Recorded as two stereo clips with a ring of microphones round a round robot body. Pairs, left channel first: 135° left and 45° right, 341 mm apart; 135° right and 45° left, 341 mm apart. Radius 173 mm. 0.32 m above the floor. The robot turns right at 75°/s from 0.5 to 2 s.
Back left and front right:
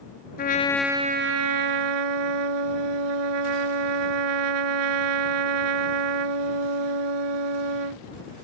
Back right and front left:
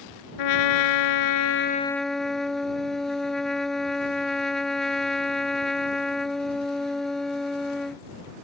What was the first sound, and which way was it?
A trumpet, 160° right.